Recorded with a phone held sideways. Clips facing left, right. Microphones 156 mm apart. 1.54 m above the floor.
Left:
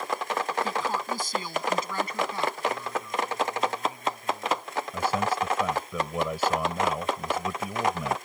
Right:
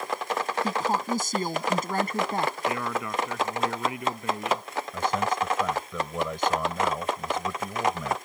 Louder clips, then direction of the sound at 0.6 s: Right 3 dB; 40° right (ahead or behind).